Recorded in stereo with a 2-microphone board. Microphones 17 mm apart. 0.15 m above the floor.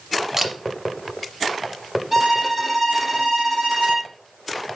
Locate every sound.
0.4 s a camera shutter: 20° right (ahead or behind), 3.5 m
2.1 s a violin: 10° right (ahead or behind), 6 m